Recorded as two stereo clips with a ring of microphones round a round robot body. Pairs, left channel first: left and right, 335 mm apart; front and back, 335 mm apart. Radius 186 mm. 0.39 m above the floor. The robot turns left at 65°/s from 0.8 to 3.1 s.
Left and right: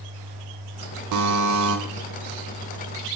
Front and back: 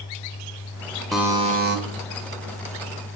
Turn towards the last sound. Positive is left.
turn(degrees=140)